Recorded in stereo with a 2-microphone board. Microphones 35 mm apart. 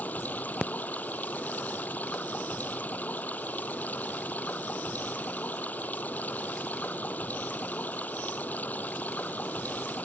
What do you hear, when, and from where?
0.0 s running water: 50° left (ahead or behind)